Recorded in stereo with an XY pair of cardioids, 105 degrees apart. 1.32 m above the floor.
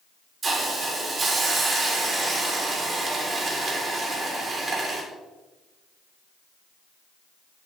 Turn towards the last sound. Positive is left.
turn(degrees=-45)